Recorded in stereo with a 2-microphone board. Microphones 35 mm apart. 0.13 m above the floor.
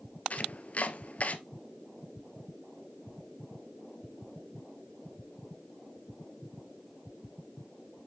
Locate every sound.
0.3 s chopping: 45° left (ahead or behind), 0.7 m